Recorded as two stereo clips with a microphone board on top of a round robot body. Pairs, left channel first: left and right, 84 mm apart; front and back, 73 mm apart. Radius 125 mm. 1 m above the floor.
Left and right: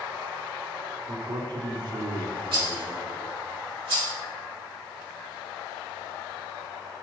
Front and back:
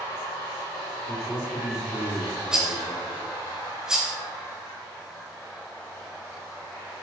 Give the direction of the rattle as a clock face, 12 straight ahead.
3 o'clock.